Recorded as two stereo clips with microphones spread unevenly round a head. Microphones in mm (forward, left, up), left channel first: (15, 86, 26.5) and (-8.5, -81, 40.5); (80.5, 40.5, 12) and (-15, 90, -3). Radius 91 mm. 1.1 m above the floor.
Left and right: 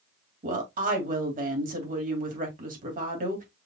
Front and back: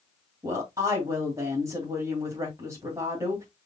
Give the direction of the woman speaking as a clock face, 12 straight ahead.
5 o'clock.